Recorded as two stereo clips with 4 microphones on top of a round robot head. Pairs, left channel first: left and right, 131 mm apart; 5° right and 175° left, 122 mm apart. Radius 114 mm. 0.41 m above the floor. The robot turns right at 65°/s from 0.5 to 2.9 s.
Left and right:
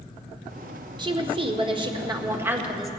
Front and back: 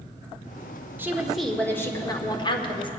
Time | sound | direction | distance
1.0 | a woman speaking | 120° right | 1.6 m